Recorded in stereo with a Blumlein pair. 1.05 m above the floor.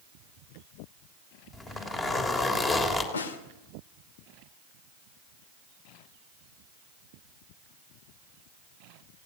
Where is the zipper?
20° left, 3 m.